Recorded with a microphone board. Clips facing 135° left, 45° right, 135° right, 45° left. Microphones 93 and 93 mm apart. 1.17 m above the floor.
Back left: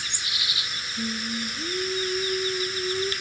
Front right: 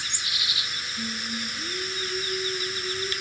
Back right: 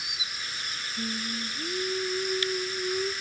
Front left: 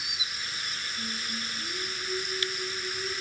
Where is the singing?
Straight behind, 1.4 m.